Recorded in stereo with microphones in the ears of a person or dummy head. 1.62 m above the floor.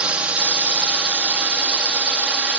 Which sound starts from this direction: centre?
A drone, at 0.0 s.